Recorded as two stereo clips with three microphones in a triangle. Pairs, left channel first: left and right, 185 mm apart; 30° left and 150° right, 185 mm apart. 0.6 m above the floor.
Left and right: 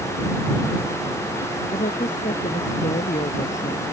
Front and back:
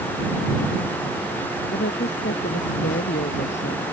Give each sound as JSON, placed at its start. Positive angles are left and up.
{"t": 1.7, "sound": "a woman speaking", "azimuth_deg": 45}